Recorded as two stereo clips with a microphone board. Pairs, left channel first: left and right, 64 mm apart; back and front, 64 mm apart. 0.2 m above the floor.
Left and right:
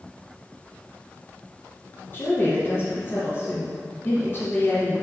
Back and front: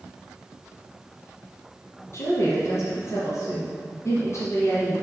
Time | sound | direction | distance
2.1 | a woman speaking | 140° left | 3 m